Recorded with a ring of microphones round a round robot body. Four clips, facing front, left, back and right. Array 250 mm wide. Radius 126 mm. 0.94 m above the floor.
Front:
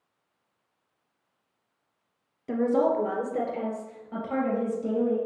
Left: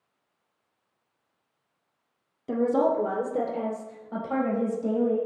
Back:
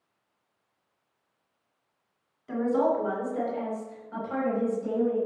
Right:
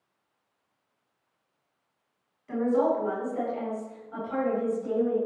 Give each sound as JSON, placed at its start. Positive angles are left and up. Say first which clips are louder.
{"t": 2.5, "sound": "a woman speaking", "louder": "left 1 dB, front 1 dB", "azimuth_deg": 60, "distance_m": 2.0}